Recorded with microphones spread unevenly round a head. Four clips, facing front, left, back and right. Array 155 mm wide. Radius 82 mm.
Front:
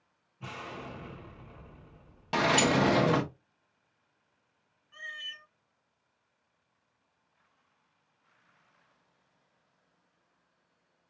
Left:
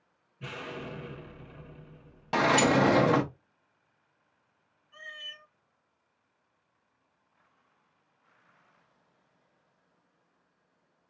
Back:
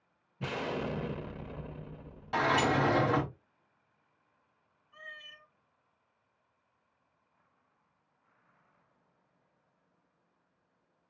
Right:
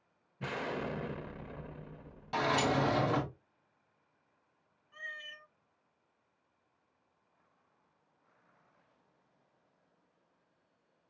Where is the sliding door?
55° left, 0.8 m.